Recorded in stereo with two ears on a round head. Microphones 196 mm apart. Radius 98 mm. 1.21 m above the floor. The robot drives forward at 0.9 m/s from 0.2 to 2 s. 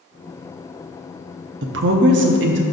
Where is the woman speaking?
55° right (ahead or behind), 0.7 m.